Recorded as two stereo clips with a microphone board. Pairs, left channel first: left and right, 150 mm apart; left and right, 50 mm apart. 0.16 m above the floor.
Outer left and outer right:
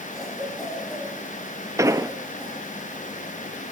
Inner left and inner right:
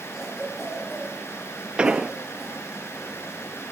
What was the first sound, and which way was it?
A cough, centre (ahead or behind).